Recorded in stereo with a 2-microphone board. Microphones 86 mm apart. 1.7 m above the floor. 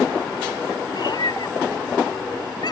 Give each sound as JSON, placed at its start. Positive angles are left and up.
{"t": 0.9, "sound": "a cat meowing", "side_deg": 60}